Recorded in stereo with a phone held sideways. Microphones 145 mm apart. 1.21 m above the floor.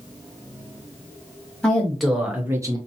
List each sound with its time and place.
1.6 s a woman speaking: 5° left (ahead or behind), 1.5 m; by 2.8 s 30° right (ahead or behind), 0.6 m